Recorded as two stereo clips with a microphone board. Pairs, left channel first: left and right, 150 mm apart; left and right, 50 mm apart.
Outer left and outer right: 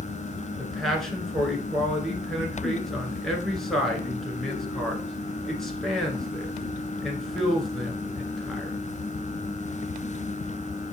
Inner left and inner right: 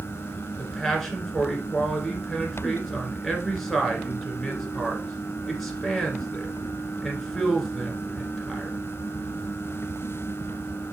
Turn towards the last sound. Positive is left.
turn(degrees=0)  # may be behind; listen again after turning